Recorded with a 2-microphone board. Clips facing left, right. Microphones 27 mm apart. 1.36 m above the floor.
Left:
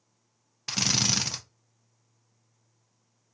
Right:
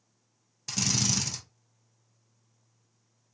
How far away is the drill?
About 0.5 m.